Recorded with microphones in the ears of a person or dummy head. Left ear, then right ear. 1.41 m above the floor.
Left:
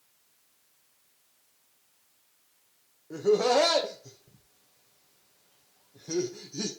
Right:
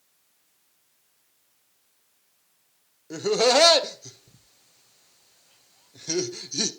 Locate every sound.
3.1 s laughter: 70° right (ahead or behind), 0.9 m